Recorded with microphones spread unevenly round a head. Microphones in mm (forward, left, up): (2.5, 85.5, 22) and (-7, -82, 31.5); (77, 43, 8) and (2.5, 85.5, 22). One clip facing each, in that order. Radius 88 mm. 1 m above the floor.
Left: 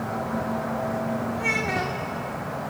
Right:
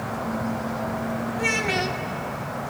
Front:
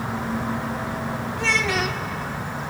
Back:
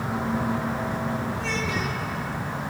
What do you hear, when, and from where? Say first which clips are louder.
1.4 s a child speaking: right 2 dB, front 4 dB; 35° right, 1.4 m